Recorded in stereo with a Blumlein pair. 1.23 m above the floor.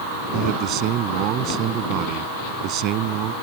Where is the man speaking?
40° right.